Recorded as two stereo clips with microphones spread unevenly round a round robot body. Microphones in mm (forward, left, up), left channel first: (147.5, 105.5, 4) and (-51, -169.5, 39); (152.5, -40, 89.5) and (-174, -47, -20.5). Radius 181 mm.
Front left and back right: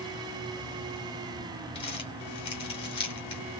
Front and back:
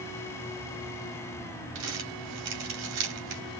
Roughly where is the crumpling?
Behind left.